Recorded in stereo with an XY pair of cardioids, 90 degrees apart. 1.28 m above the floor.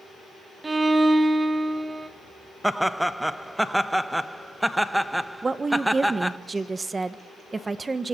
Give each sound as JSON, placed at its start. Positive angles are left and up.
{"t": 0.6, "sound": "a violin", "azimuth_deg": -25, "distance_m": 1.3}
{"t": 2.6, "sound": "laughter", "azimuth_deg": -5, "distance_m": 1.2}
{"t": 5.4, "sound": "a woman speaking", "azimuth_deg": -30, "distance_m": 1.2}